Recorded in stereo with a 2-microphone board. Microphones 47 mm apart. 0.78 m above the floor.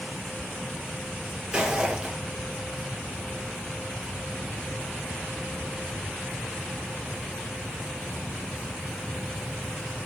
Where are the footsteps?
20° right (ahead or behind), 0.9 m.